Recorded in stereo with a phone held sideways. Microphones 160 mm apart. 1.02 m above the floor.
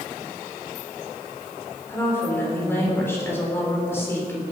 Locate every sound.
1.9 s a woman speaking: 15° left (ahead or behind), 4 m